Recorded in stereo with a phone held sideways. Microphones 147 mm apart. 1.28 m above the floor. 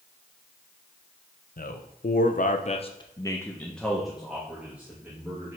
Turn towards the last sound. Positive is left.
turn(degrees=-15)  # may be behind; listen again after turning